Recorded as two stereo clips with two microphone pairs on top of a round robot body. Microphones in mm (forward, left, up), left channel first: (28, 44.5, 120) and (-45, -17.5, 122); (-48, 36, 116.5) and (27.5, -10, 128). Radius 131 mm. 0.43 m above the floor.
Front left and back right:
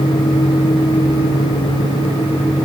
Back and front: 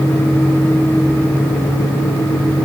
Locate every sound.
Only background noise.